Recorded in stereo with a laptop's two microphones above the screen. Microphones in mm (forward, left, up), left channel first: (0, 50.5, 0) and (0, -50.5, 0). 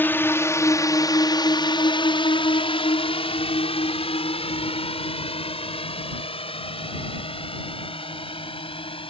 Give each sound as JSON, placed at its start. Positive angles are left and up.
{"t": 0.0, "sound": "a drone", "side_deg": 20}